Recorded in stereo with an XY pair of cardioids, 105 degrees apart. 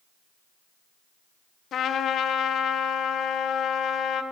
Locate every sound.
1.7 s a trumpet: 65° left, 1.7 m